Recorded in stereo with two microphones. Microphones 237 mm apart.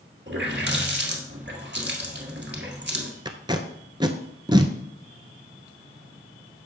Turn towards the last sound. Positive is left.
turn(degrees=-20)  # may be behind; listen again after turning